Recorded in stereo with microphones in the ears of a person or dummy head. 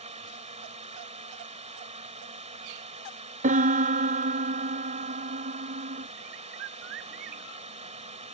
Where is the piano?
45° right (ahead or behind).